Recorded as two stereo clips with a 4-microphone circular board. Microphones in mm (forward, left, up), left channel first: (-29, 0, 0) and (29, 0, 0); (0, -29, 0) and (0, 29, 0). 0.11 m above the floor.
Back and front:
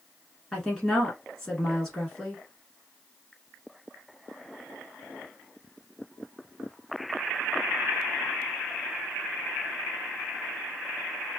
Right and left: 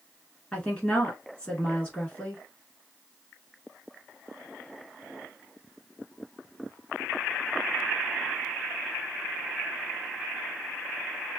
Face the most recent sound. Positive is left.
turn(degrees=-110)